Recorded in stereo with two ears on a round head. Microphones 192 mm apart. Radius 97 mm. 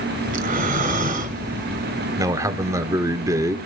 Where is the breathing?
40° right (ahead or behind), 2.0 m.